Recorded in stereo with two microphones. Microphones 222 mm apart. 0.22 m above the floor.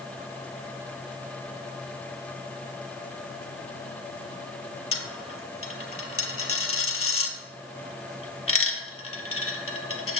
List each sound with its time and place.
4.9 s a dropped coin: 80° left, 1.0 m